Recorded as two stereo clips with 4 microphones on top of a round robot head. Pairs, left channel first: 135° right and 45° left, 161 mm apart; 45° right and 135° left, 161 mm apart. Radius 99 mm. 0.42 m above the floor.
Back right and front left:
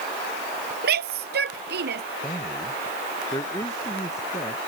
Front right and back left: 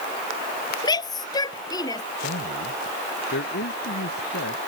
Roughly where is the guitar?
No guitar in this recording.